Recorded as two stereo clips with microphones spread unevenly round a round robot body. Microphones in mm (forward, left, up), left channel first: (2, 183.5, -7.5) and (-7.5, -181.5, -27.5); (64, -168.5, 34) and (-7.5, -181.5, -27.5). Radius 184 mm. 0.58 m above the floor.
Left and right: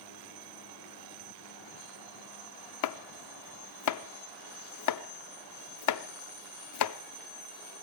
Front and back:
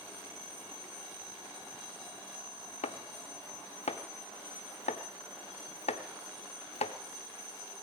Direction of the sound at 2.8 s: 45° left.